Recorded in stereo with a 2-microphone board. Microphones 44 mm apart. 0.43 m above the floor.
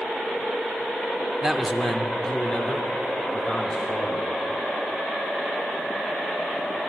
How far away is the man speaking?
About 0.8 m.